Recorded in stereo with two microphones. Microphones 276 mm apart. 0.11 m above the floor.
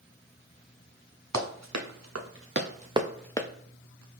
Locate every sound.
1.3 s running footsteps: 80° right, 1.4 m; by 3.5 s 20° left (ahead or behind), 0.7 m